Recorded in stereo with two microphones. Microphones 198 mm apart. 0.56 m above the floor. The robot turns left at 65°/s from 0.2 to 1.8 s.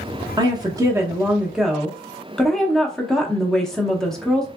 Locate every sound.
0.4 s a woman speaking: 20° right (ahead or behind), 0.7 m; by 4.5 s 5° left (ahead or behind), 0.7 m